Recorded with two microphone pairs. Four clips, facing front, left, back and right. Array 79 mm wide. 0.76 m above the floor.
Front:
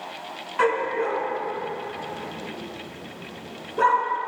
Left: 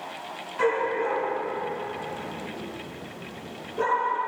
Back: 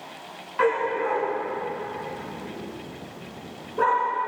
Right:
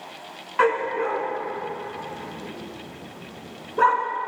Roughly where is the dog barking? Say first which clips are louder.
Right 3 dB, even; right.